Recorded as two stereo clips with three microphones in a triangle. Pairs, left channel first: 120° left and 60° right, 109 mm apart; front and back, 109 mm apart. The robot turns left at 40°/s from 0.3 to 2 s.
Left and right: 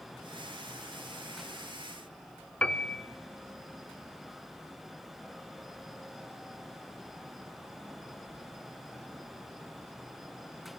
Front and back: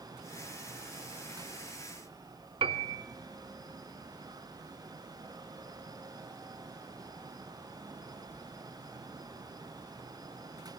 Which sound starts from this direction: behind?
A piano, at 2.6 s.